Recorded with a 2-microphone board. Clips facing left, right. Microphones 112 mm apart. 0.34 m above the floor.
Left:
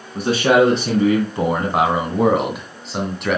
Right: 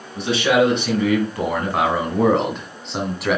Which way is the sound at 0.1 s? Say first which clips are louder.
Left 3 dB; 40° left (ahead or behind).